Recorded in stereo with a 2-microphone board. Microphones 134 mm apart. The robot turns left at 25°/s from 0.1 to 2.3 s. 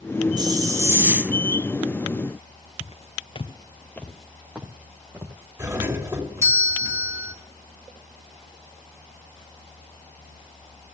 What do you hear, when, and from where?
0.4 s a hiss: 30° right (ahead or behind), 0.8 m; by 1.3 s 10° right (ahead or behind), 0.8 m
2.8 s footsteps: 45° left (ahead or behind), 0.9 m; by 6.6 s 25° right (ahead or behind), 2.5 m
5.6 s a doorbell: 15° right (ahead or behind), 1.8 m